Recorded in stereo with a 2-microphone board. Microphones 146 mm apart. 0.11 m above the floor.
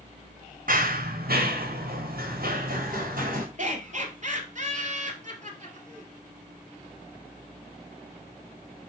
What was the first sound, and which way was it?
Running footsteps, 65° right (ahead or behind).